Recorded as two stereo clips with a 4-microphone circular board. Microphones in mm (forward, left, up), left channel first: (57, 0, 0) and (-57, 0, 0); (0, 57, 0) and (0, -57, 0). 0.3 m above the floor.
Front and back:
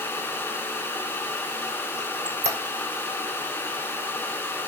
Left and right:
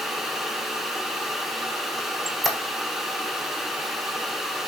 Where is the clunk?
I don't hear a clunk.